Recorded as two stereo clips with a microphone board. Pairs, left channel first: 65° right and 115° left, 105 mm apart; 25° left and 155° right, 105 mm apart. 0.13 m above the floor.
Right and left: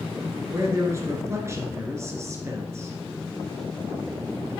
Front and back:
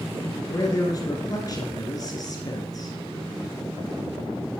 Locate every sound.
0.5 s a man speaking: 60° left, 1.5 m